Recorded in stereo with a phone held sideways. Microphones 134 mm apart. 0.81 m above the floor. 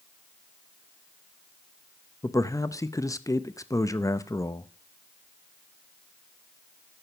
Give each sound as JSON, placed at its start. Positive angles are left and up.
{"t": 2.2, "sound": "a man speaking", "side_deg": 25, "distance_m": 0.6}